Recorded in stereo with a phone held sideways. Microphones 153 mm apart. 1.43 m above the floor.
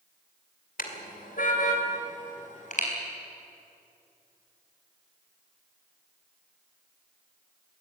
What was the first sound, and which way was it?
A car horn, 70° left (ahead or behind).